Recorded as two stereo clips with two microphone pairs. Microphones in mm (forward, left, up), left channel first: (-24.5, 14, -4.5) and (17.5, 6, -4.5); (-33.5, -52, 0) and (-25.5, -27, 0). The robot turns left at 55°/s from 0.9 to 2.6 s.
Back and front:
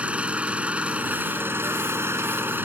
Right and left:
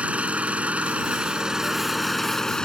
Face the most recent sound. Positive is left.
turn(degrees=-45)